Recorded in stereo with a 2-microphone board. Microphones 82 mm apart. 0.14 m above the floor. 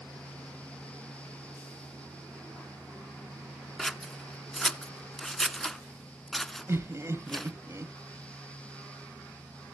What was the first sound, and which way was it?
Scissors, 5° left (ahead or behind).